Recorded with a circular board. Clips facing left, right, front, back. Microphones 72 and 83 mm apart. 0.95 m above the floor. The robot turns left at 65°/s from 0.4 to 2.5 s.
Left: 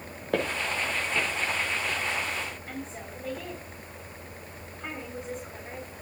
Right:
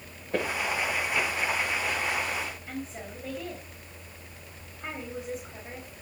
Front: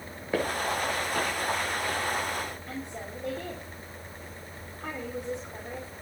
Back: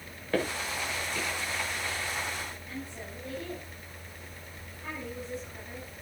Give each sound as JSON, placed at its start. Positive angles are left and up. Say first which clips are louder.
{"t": 0.3, "sound": "footsteps", "louder": "even, front 3 dB", "azimuth_deg": 80, "distance_m": 7.5}
{"t": 2.7, "sound": "a woman speaking", "louder": "right 1 dB, front 3 dB", "azimuth_deg": -5, "distance_m": 5.0}